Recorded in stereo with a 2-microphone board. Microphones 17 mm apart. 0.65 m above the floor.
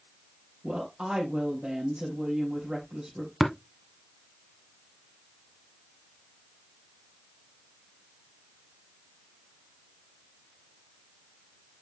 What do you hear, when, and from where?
0.6 s a woman speaking: 45° right (ahead or behind), 3.5 m
3.4 s tapping: 15° right (ahead or behind), 1.3 m